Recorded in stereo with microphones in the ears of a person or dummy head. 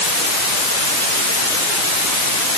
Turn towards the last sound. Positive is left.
No sound to turn to.